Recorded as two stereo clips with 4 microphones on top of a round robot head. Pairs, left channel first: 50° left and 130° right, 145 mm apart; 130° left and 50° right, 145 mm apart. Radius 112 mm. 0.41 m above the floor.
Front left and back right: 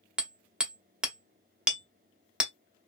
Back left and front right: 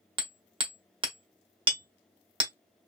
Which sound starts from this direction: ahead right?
Hammering, at 0.2 s.